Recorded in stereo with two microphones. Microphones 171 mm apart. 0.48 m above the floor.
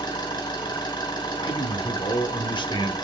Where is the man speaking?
30° left (ahead or behind), 0.9 m.